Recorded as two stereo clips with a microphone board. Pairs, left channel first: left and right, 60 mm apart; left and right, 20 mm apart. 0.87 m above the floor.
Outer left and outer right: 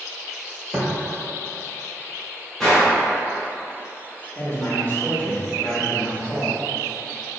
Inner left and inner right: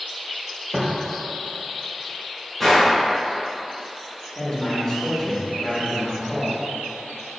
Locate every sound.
0.7 s footsteps: 15° right (ahead or behind), 1.1 m
2.6 s a gunshot: centre (ahead or behind), 1.8 m
4.3 s a man speaking: 35° left (ahead or behind), 1.2 m